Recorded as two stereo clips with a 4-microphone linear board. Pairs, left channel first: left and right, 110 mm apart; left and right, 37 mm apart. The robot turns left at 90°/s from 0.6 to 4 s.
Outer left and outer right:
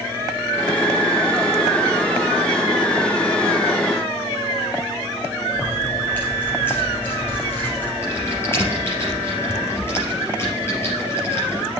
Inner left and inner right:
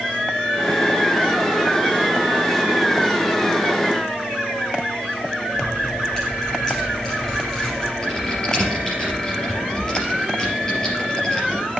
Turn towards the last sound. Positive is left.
turn(degrees=20)  # may be behind; listen again after turning